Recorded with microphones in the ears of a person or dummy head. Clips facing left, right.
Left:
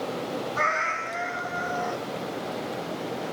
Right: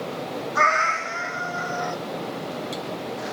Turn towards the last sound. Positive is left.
turn(degrees=-40)  # may be behind; listen again after turning